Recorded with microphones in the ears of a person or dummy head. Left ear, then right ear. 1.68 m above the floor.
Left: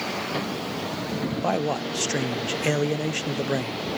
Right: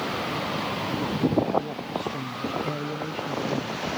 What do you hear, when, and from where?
1.4 s a man speaking: 55° left (ahead or behind), 0.7 m